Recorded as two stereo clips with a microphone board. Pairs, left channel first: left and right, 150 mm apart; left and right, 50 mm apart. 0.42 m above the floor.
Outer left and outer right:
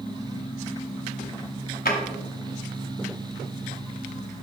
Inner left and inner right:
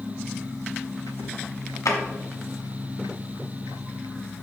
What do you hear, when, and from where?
1.9 s a drawer: 85° left, 1.3 m